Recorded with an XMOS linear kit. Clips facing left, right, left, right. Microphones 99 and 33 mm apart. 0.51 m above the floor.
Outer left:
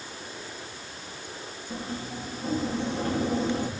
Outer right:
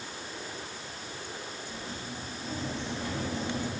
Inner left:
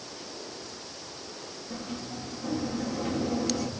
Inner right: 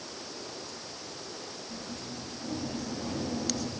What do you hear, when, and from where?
1.7 s a sliding door: 45° left (ahead or behind), 6.5 m